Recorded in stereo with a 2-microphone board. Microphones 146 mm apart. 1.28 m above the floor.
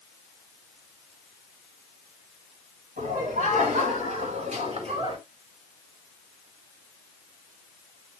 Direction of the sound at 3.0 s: 60° right (ahead or behind).